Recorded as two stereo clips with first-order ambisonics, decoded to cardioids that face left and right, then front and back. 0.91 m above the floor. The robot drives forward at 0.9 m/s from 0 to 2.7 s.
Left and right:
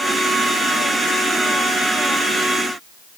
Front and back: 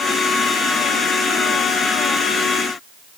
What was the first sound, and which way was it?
Only background noise.